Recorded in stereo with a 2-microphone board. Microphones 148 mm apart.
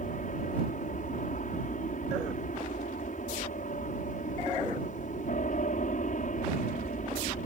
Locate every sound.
0.0 s an aircraft: 60° left (ahead or behind)